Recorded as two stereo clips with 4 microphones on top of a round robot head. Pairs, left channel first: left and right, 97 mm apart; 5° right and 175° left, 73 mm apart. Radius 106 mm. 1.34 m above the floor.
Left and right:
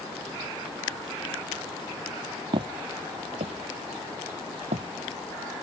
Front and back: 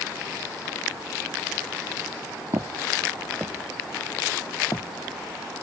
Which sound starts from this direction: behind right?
Footsteps, at 2.5 s.